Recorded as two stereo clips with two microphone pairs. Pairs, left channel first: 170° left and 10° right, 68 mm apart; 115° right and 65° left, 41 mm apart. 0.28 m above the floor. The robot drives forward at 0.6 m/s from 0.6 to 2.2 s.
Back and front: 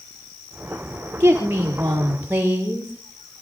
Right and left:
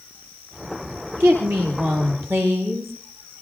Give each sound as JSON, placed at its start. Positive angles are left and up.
{"t": 1.2, "sound": "a woman speaking", "azimuth_deg": 50, "distance_m": 6.5}